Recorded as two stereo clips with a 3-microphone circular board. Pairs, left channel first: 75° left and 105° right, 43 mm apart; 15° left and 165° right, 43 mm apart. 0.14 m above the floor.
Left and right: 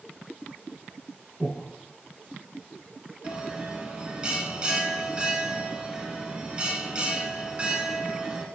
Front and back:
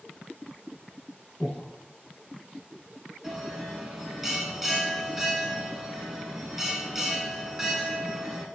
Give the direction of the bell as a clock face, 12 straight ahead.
3 o'clock.